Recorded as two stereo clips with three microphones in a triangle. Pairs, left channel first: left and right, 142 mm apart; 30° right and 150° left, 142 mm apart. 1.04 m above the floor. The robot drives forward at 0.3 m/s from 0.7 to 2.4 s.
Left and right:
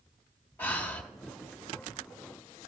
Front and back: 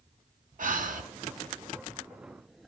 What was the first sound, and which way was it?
Breathing, 165° left.